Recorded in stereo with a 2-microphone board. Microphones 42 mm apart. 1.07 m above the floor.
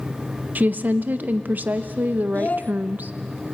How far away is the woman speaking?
About 0.9 m.